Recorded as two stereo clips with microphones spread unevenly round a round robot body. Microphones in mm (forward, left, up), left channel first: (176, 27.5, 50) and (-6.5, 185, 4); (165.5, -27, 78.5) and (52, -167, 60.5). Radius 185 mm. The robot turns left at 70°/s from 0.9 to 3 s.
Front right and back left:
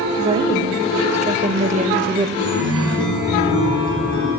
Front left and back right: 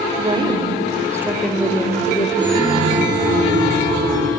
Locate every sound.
0.2 s a woman speaking: 175° right, 1.6 m; by 2.3 s 90° left, 1.6 m
2.4 s a chime: 45° right, 7.5 m; by 4.3 s 85° right, 7.5 m